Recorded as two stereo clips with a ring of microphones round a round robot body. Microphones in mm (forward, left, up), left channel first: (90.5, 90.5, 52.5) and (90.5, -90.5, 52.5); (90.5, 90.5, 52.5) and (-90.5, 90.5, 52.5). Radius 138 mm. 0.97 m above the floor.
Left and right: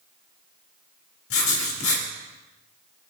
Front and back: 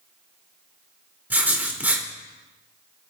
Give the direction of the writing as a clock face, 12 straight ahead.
9 o'clock.